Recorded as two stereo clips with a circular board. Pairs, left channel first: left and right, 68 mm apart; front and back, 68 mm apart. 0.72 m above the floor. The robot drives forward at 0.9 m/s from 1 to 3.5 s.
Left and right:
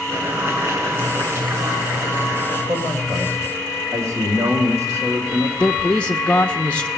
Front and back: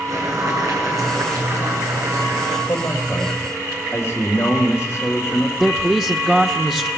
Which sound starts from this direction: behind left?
A man speaking, at 5.6 s.